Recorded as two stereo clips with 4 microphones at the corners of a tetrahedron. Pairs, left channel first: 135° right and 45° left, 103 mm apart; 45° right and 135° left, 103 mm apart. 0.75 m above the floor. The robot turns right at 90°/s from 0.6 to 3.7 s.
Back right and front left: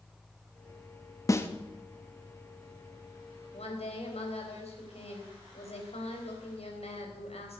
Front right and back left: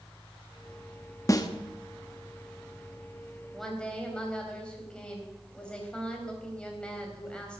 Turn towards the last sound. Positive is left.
turn(degrees=-125)